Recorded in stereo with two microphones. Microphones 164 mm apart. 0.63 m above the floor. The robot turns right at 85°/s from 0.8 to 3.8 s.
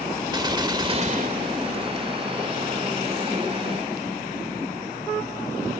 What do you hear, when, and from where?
0.3 s a gunshot: 150° right; by 2.1 s 45° right